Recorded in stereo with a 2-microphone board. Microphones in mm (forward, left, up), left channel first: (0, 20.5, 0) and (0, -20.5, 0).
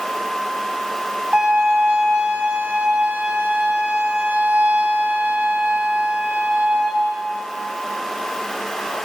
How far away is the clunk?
I don't hear a clunk.